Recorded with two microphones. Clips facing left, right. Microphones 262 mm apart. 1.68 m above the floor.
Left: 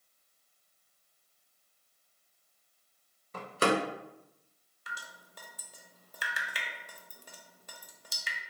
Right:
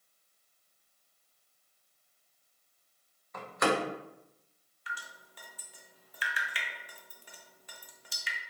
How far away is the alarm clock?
No alarm clock in this recording.